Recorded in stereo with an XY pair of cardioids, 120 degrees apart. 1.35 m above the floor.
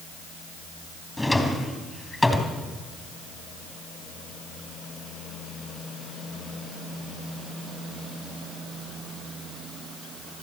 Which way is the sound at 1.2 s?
10° left.